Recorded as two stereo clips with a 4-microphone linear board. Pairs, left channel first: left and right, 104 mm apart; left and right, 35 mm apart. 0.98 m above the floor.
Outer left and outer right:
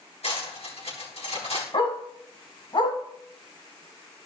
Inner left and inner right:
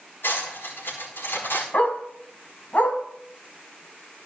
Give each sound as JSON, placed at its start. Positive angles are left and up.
{"t": 0.2, "sound": "cutlery clinking", "side_deg": 75, "distance_m": 4.5}
{"t": 1.7, "sound": "a dog barking", "side_deg": 50, "distance_m": 2.0}